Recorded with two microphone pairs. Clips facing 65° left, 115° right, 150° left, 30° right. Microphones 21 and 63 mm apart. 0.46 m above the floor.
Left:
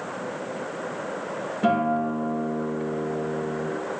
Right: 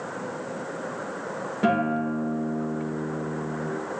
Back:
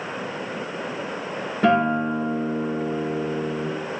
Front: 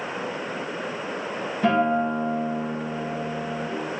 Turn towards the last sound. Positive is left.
turn(degrees=-170)